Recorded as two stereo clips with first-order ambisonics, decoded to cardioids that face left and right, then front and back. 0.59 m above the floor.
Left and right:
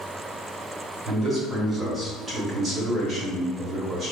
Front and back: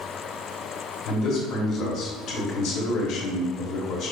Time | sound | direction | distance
1.1 | a man speaking | 25° right | 1.0 m